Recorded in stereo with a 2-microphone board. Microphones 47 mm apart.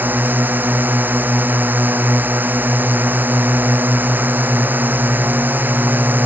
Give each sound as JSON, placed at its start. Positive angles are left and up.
{"t": 0.0, "sound": "a drone", "side_deg": -40}